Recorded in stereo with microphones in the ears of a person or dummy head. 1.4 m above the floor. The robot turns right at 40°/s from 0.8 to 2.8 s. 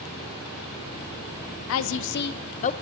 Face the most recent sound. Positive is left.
turn(degrees=145)